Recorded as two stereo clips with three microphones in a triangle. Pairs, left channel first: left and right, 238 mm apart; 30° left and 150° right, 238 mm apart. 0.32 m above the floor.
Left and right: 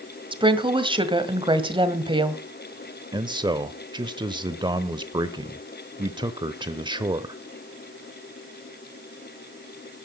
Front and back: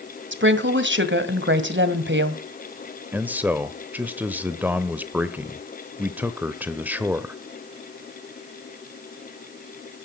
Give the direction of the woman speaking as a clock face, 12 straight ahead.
5 o'clock.